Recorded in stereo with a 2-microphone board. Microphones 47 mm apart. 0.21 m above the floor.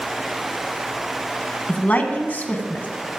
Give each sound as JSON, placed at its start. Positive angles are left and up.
{"t": 1.7, "sound": "a woman speaking", "side_deg": 35, "distance_m": 1.5}